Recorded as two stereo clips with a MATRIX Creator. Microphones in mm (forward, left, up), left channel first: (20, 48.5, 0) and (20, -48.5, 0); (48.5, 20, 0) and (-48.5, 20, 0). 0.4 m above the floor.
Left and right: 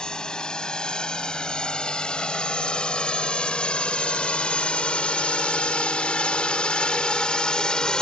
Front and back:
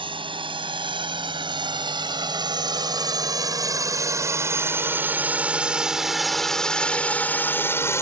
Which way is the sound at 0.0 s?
170° left.